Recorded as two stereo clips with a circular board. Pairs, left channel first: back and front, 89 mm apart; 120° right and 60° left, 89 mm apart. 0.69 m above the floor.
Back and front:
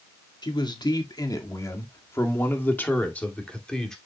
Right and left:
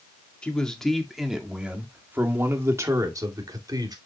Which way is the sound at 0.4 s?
165° left.